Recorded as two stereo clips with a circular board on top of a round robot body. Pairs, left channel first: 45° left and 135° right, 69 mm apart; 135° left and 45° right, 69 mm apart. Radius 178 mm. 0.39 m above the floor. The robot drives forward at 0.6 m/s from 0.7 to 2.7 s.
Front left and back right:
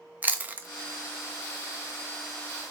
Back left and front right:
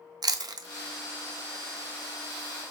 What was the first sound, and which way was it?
Chewing, 70° right.